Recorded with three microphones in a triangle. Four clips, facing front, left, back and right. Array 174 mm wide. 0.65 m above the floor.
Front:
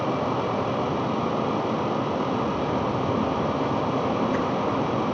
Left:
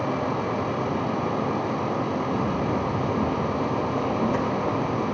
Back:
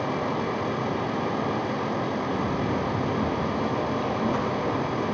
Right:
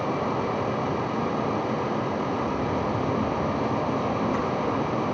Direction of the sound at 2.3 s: 95° left.